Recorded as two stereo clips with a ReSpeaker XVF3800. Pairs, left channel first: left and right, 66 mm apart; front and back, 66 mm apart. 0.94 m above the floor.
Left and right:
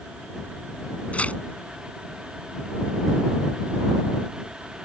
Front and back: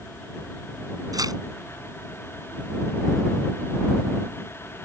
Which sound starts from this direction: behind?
Tearing paper, at 1.1 s.